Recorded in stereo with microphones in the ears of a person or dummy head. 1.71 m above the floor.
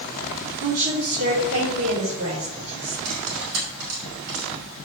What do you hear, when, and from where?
0.6 s a woman speaking: 60° right (ahead or behind), 4.5 m
3.0 s cutlery clinking: 75° right (ahead or behind), 5 m